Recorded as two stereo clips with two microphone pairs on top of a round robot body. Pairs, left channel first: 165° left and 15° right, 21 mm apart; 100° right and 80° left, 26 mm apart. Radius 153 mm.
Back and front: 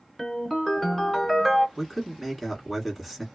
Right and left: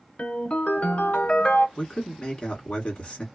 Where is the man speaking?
110° right, 1.7 m.